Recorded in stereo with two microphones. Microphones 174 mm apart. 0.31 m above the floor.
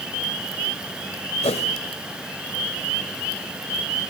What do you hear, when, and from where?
1.4 s a whoosh: 35° left (ahead or behind), 1.7 m